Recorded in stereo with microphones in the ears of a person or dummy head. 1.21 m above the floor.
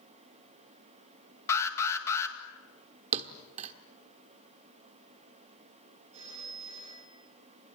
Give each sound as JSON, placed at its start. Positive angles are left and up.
{"t": 1.5, "sound": "an alarm", "side_deg": 10, "distance_m": 2.0}
{"t": 3.1, "sound": "a thud", "side_deg": -40, "distance_m": 1.2}
{"t": 6.1, "sound": "a phone ringing", "side_deg": -30, "distance_m": 9.0}